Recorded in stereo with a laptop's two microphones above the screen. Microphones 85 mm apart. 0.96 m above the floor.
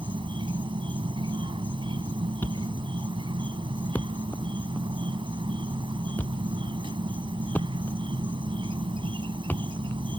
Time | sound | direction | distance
0.0 | an insect | 80° right | ?
2.4 | a thud | 20° left (ahead or behind) | ?